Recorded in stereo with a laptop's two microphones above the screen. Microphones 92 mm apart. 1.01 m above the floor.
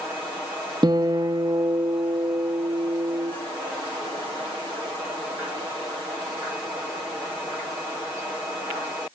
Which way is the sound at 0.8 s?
45° right (ahead or behind).